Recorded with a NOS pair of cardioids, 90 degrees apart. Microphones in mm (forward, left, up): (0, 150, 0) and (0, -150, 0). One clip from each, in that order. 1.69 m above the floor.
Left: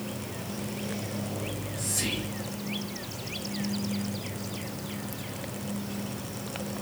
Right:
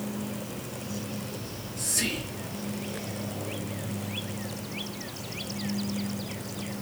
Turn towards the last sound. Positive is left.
turn(degrees=-60)